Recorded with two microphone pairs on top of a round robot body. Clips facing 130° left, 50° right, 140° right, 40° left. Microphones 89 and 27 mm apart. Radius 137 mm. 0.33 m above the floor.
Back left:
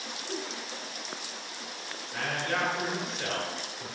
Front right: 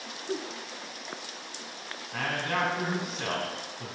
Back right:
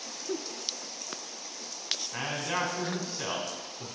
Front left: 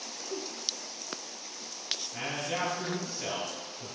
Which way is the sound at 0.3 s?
120° right.